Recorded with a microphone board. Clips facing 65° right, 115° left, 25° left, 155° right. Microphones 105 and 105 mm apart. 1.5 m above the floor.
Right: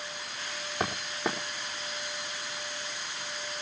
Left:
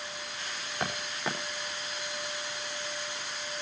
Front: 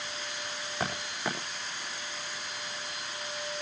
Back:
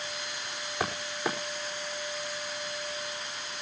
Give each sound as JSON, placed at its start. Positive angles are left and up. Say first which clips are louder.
{"t": 0.8, "sound": "footsteps", "louder": "right 3 dB, back 2 dB", "azimuth_deg": -80, "distance_m": 5.0}